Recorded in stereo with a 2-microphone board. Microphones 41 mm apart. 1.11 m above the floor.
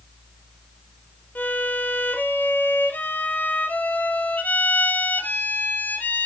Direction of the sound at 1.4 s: 45° left (ahead or behind).